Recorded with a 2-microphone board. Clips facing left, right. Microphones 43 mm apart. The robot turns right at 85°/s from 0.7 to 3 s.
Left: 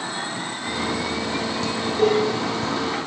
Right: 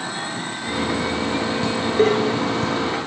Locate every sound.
1.6 s dishes clattering: 25° right (ahead or behind), 1.4 m; by 2.8 s 45° right (ahead or behind), 1.4 m